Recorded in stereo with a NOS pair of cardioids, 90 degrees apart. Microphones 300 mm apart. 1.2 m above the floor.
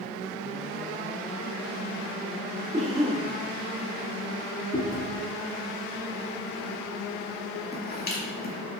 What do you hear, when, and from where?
2.7 s a cough: 20° right, 2 m
4.7 s chewing: 30° left, 2 m